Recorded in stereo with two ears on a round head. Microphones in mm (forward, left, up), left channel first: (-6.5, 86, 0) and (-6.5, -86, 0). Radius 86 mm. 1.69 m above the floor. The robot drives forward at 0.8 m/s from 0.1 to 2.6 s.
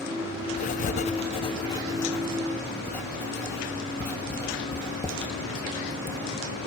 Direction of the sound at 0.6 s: 35° left (ahead or behind).